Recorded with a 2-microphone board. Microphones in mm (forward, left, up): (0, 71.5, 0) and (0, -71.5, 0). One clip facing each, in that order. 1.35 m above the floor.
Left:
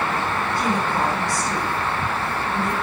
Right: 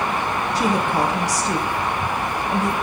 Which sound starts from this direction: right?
A woman speaking, at 0.6 s.